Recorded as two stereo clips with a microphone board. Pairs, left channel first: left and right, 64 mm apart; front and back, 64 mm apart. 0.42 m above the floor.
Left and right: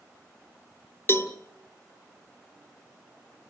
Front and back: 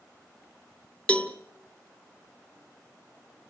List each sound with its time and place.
1.1 s a cowbell: 60° left, 1.0 m